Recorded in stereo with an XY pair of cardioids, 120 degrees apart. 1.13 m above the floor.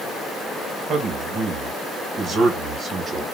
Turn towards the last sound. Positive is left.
turn(degrees=-35)